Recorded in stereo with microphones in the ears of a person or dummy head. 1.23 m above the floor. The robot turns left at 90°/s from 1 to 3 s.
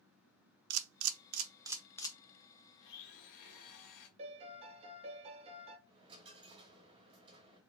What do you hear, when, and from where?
0.7 s a camera shutter: 75° right (ahead or behind), 0.6 m; by 2.2 s 30° left (ahead or behind), 0.6 m
2.8 s a blender: 60° left (ahead or behind), 1.3 m; by 4.1 s 45° left (ahead or behind), 1.3 m
4.2 s a piano: 35° right (ahead or behind), 0.9 m
5.9 s a dropped coin: 30° right (ahead or behind), 1.1 m